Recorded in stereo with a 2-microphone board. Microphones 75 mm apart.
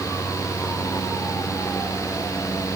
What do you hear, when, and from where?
Only background noise.